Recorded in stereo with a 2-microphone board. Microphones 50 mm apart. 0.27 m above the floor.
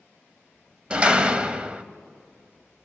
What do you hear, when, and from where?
0.9 s a door slam: 20° right (ahead or behind), 0.8 m